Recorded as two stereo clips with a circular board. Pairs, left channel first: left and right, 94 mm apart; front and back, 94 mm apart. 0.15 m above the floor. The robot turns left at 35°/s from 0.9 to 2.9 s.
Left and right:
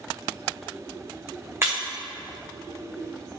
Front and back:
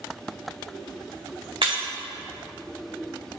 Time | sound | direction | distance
1.6 | breaking glass | 150° right | 2.5 m